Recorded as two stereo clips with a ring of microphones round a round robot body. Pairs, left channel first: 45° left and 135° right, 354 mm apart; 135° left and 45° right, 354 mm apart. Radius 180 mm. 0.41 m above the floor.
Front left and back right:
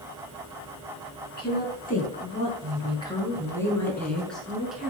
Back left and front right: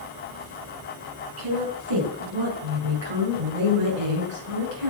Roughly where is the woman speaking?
Ahead.